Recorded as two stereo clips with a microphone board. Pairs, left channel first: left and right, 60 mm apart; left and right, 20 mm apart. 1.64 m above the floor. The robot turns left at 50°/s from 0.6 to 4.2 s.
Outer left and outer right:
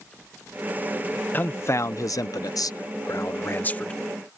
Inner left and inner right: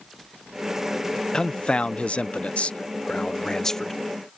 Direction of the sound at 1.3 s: 145° left.